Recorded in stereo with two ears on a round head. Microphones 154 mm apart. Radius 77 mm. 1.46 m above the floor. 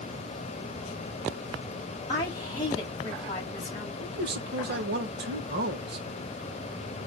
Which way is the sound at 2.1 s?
25° left (ahead or behind).